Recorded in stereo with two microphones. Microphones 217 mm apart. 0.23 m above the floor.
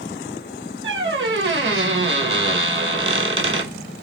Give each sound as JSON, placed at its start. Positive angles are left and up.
{"t": 0.8, "sound": "a squeak", "side_deg": -70, "distance_m": 0.7}